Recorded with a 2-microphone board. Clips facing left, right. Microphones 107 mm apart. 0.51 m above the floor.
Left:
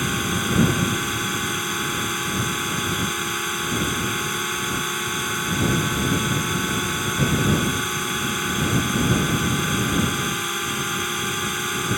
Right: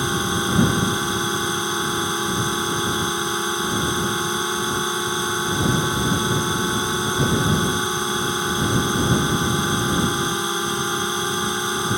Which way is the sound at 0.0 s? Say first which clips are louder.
Right 2 dB; 20° right (ahead or behind).